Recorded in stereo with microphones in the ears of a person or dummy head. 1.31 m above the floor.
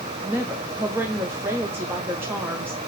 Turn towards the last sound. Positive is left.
turn(degrees=-15)  # may be behind; listen again after turning